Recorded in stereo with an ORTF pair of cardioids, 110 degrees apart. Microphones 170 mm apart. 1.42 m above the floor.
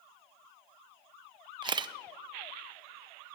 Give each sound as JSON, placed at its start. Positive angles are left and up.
{"t": 1.6, "sound": "a camera shutter", "azimuth_deg": -25, "distance_m": 1.0}